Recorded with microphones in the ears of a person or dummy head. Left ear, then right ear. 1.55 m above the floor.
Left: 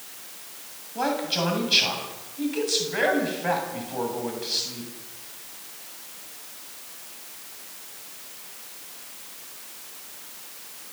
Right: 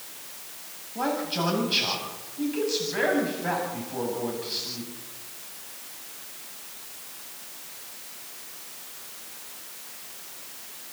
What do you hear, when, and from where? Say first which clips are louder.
0.9 s a man speaking: left 2 dB; 25° left (ahead or behind), 8.5 m